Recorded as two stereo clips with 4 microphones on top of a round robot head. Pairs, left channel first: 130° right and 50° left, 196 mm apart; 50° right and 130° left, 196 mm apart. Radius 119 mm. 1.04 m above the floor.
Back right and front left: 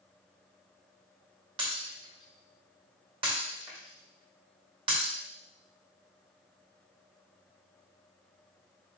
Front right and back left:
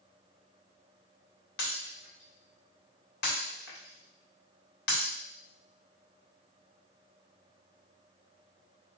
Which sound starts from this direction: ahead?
Breaking glass, at 1.6 s.